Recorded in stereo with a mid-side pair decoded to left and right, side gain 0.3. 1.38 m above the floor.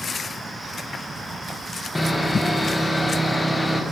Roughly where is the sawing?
Ahead.